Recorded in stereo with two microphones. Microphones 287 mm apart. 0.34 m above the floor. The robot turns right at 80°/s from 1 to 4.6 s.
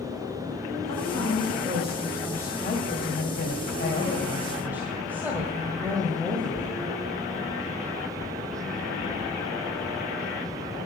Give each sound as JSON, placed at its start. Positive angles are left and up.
{"t": 0.8, "sound": "a woman speaking", "azimuth_deg": -100, "distance_m": 1.8}